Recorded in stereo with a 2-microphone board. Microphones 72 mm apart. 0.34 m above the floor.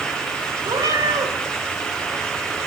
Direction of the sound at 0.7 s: 80° right.